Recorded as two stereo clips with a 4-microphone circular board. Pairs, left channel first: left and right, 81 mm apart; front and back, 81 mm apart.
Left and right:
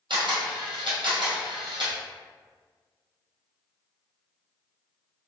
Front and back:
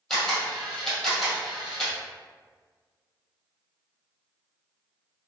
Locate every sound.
0.1 s a camera shutter: 85° right, 1.7 m